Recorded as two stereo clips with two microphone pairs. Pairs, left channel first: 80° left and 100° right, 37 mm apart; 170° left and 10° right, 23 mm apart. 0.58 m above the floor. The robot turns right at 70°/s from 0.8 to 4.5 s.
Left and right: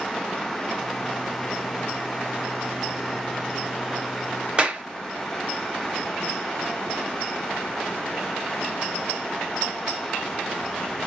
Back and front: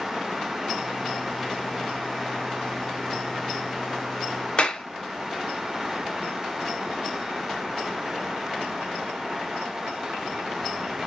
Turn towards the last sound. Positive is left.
turn(degrees=-155)